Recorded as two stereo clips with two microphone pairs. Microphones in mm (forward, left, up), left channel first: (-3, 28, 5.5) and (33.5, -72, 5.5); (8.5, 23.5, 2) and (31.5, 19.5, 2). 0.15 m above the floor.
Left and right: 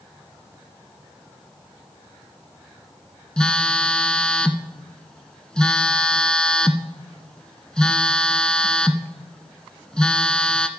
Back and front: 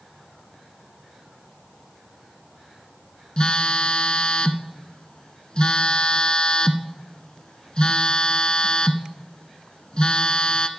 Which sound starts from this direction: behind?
A phone buzzing, at 3.4 s.